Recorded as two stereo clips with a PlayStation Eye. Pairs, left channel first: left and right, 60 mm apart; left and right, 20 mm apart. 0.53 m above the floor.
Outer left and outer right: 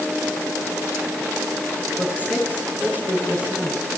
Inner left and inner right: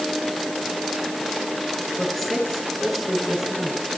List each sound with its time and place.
2.0 s a woman speaking: 25° left (ahead or behind), 8 m